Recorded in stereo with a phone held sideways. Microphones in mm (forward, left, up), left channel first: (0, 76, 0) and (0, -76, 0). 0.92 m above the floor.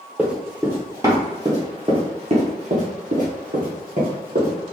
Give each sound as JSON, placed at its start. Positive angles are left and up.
{"t": 0.2, "sound": "running footsteps", "side_deg": -5, "distance_m": 1.6}